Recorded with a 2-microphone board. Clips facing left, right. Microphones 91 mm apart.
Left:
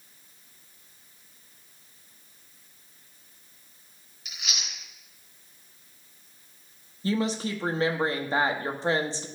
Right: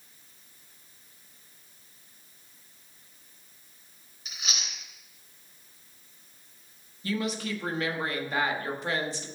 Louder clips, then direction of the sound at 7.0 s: Left 4 dB; 30° left (ahead or behind).